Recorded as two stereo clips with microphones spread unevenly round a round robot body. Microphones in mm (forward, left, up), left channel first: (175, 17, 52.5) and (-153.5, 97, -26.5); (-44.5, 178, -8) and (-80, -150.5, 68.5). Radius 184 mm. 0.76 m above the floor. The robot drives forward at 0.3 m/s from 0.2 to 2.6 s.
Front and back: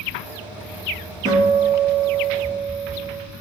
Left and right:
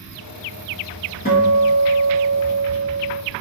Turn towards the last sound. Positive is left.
turn(degrees=140)